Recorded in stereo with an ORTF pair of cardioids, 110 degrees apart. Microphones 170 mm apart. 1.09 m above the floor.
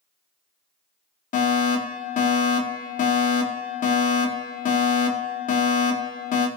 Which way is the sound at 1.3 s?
50° left.